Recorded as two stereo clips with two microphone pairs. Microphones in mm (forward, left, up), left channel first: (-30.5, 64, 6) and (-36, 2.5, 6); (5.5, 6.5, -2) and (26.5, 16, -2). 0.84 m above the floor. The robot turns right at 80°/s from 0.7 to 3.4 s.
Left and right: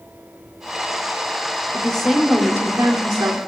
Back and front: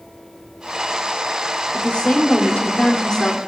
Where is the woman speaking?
145° left, 2.5 m; by 3.4 s 80° right, 2.5 m.